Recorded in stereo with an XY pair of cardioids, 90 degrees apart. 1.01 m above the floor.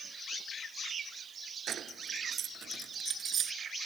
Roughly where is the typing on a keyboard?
I don't hear typing on a keyboard.